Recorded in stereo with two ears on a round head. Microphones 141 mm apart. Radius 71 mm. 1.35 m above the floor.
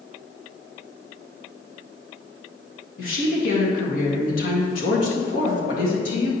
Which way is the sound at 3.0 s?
65° left (ahead or behind).